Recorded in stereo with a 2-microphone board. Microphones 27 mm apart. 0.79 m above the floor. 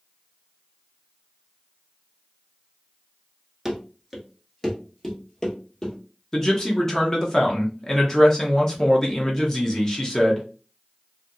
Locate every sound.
3.6 s running footsteps: 10° right (ahead or behind), 0.7 m; by 6.0 s 25° left (ahead or behind), 1.5 m
6.3 s a man speaking: 20° left (ahead or behind), 0.9 m